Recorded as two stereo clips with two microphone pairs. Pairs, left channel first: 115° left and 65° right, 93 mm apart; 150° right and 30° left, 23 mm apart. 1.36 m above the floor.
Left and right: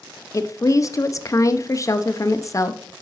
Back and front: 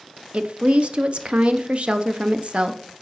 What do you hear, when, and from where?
0.3 s a woman speaking: 60° left, 0.5 m